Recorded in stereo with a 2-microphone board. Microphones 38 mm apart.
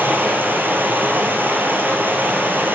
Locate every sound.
0.0 s running water: 60° right (ahead or behind), 2 m